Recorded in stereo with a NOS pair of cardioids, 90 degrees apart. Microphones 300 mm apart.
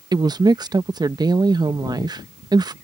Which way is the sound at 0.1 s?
15° right.